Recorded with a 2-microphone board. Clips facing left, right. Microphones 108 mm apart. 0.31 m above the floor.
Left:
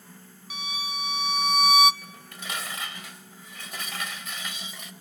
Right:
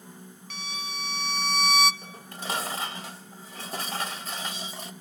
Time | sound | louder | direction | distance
0.5 | a violin | left 3 dB | 10° left (ahead or behind) | 0.6 m
2.0 | dishes clattering | right 4 dB | 35° right (ahead or behind) | 0.9 m